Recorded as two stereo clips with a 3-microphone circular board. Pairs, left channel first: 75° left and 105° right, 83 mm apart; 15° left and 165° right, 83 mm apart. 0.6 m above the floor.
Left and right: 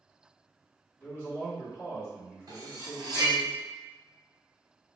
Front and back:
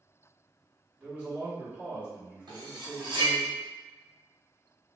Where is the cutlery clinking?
145° right, 0.8 m.